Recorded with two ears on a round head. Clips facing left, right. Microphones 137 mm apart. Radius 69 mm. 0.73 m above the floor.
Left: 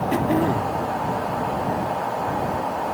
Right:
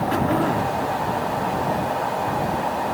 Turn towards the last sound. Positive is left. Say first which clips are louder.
# left 1 dB
turn(degrees=20)  # may be behind; listen again after turning